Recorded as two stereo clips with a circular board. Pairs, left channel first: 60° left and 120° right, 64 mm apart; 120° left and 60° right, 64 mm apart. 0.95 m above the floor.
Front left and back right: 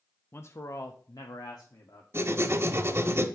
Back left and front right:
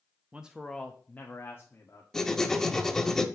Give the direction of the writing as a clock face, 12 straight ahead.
5 o'clock.